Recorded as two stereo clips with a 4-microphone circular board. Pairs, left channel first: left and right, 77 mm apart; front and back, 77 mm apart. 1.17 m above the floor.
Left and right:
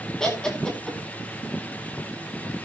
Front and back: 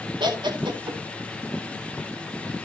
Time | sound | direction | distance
0.2 | laughter | 170° left | 2.5 m